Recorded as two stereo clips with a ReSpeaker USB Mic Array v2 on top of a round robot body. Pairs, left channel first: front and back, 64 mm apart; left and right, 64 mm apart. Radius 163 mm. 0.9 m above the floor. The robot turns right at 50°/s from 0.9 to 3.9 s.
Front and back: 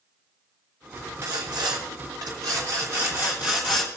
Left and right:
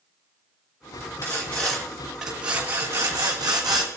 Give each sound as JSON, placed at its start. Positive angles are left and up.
{"t": 1.2, "sound": "sawing", "azimuth_deg": 135, "distance_m": 1.2}